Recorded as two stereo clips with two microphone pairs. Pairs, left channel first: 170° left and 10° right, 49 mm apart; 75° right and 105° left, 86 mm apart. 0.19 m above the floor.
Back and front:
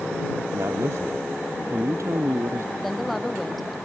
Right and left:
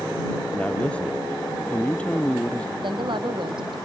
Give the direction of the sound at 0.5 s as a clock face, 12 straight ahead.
12 o'clock.